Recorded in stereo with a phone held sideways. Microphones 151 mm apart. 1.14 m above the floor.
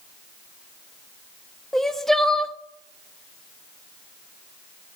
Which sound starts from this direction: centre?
Crying, at 1.7 s.